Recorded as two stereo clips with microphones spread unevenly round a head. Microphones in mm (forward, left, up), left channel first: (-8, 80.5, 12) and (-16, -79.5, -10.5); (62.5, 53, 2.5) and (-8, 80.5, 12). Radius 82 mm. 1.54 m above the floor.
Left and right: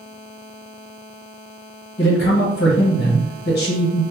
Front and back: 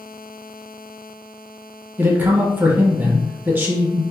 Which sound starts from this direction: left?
A man speaking, at 2.0 s.